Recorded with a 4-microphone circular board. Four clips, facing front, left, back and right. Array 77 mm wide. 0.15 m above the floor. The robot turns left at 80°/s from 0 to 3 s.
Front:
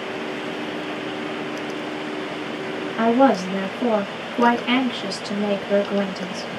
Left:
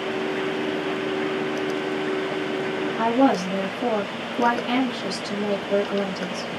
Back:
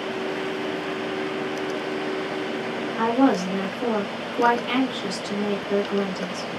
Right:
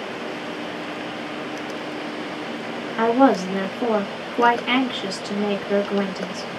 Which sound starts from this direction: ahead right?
A woman speaking, at 3.0 s.